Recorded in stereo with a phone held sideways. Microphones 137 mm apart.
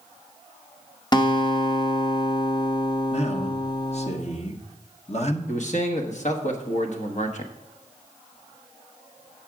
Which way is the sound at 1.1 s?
30° left (ahead or behind).